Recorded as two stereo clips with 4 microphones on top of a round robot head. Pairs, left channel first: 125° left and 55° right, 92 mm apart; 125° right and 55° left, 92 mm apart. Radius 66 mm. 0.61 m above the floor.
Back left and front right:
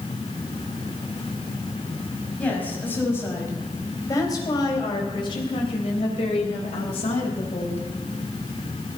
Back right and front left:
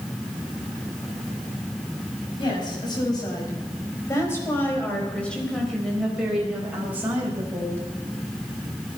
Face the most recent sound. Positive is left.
turn(degrees=115)